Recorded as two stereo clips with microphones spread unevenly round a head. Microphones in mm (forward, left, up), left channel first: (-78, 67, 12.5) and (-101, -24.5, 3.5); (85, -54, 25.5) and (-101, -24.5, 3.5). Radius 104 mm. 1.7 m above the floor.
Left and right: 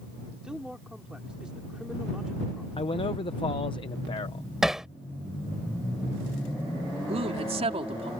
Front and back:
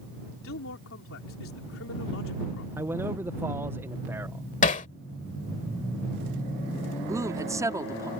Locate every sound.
0.4 s a man speaking: 15° right
2.8 s a man speaking: 90° left
4.6 s hammering: 10° right
7.1 s a woman speaking: 115° right